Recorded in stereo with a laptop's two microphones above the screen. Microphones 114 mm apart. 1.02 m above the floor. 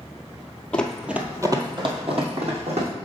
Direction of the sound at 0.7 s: 10° left (ahead or behind).